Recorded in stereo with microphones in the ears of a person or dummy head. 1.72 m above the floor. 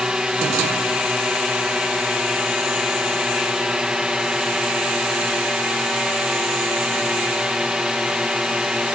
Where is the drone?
5° right (ahead or behind).